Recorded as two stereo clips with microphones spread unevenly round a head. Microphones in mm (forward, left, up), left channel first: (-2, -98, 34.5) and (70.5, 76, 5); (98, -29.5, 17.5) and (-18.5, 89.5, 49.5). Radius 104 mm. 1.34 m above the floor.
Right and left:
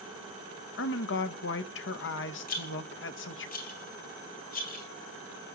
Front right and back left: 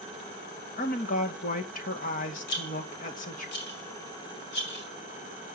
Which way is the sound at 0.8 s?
90° right.